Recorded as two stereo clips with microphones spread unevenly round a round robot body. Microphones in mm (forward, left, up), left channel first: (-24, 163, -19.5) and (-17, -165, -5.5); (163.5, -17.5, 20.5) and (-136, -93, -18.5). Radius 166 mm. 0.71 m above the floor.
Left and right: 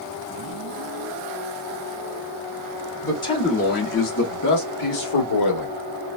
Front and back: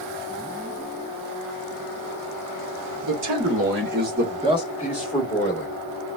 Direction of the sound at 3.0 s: 170° left.